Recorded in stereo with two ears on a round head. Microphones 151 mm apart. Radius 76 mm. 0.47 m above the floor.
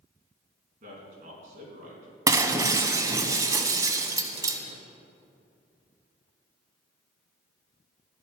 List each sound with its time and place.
0.8 s a man speaking: 45° right (ahead or behind), 4.5 m
2.3 s breaking glass: 20° right (ahead or behind), 1.0 m